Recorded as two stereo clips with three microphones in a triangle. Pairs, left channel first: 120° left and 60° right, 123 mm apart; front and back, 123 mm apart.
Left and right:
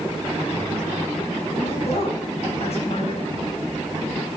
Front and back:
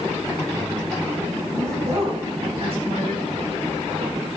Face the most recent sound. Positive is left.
turn(degrees=145)